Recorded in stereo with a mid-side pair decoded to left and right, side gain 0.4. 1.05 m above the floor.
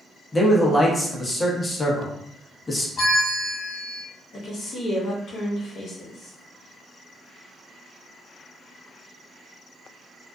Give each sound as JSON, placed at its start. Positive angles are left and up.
{"t": 0.3, "sound": "a man speaking", "azimuth_deg": 25, "distance_m": 1.0}
{"t": 3.0, "sound": "a bell", "azimuth_deg": 45, "distance_m": 1.7}
{"t": 4.3, "sound": "a woman speaking", "azimuth_deg": 65, "distance_m": 1.1}